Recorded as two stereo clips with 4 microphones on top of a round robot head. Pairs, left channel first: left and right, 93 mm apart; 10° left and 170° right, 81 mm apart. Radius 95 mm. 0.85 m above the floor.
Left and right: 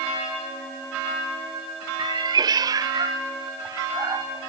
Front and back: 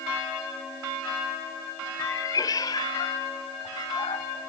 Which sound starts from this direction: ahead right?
A cat meowing, at 2.0 s.